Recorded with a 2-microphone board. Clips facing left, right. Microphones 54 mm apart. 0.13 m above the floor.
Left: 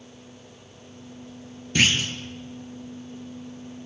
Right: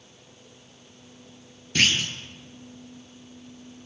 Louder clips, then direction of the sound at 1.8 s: Left 1 dB; 10° left (ahead or behind).